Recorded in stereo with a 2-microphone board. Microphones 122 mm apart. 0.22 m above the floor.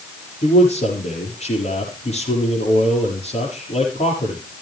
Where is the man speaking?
60° left (ahead or behind), 6.5 m.